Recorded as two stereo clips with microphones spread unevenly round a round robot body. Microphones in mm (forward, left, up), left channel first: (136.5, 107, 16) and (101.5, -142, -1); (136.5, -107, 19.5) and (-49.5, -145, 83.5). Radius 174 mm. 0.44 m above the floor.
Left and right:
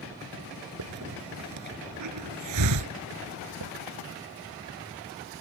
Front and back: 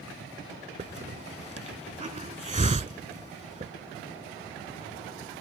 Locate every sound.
0.8 s a hiss: 115° right